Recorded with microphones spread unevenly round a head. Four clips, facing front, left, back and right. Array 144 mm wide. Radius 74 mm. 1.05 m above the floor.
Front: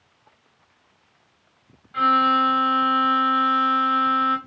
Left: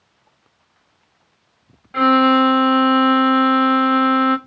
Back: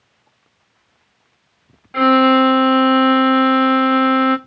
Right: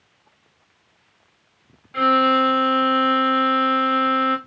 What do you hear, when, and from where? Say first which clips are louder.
1.9 s a violin: left 4 dB, back 7 dB; 165° left, 0.7 m